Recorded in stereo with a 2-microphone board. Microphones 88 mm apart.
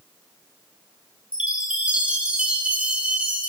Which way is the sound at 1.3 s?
15° right (ahead or behind).